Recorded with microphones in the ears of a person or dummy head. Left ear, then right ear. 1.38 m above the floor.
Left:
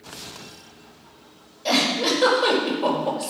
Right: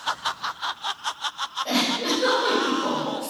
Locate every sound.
1.6 s a giggle: 35° left (ahead or behind), 5 m